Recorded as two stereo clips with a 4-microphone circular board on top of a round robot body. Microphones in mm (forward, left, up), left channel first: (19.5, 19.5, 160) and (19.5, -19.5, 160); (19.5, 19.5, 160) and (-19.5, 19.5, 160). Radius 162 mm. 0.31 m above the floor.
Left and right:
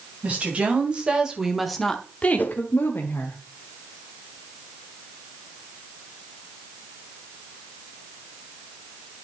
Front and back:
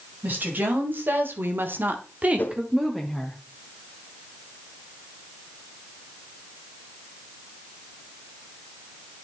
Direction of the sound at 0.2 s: 140° right.